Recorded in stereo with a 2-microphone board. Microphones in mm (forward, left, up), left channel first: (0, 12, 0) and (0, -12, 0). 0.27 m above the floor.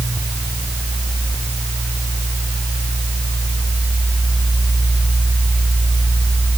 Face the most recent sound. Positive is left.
No sound to turn to.